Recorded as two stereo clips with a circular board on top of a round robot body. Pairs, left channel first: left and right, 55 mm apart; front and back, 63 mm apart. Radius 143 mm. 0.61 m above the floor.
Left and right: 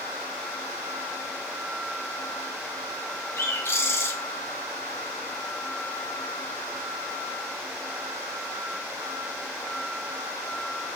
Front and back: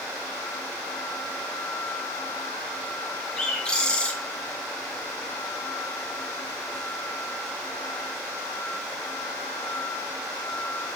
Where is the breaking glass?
I don't hear breaking glass.